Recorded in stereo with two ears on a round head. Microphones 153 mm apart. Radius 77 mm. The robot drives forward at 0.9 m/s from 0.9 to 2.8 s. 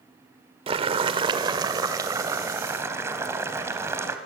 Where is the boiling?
30° right (ahead or behind), 1.3 m; by 4.2 s 15° right (ahead or behind), 2.5 m.